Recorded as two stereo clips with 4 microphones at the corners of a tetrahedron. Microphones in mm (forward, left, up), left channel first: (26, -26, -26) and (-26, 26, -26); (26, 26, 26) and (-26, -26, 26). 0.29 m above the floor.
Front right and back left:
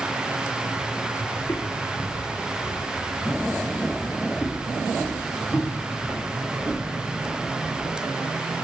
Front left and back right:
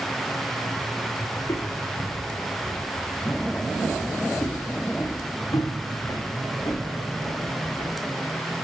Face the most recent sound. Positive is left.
turn(degrees=30)